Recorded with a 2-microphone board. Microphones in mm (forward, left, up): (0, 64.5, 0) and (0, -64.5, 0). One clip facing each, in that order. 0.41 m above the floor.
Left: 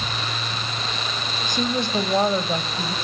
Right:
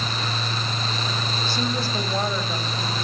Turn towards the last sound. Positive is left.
turn(degrees=45)  # may be behind; listen again after turning